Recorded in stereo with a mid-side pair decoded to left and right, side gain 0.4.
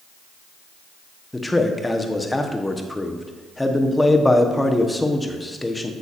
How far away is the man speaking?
About 1.0 m.